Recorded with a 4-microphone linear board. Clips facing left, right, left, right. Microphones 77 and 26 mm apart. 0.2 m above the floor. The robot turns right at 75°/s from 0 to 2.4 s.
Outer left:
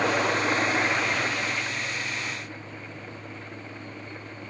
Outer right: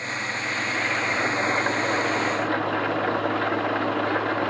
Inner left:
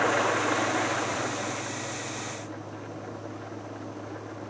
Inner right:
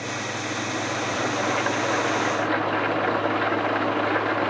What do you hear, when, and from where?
0.0 s an engine running: 105° left; by 4.5 s 75° right